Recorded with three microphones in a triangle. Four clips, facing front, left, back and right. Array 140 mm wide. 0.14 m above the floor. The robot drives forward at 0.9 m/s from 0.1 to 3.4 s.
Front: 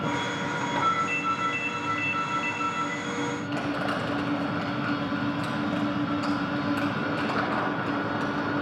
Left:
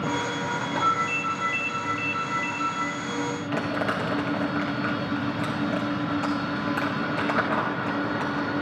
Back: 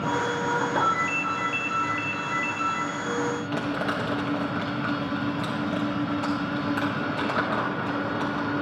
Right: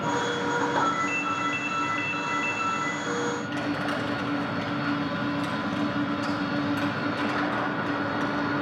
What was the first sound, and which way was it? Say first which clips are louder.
A ringtone: left 1 dB, back 1 dB; 85° right.